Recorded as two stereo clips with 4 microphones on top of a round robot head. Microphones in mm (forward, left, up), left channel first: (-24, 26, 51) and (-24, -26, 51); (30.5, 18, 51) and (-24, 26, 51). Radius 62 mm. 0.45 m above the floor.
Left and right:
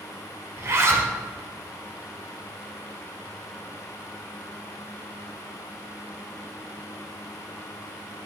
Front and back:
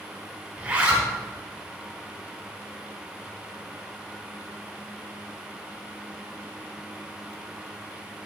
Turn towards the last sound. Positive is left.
turn(degrees=-120)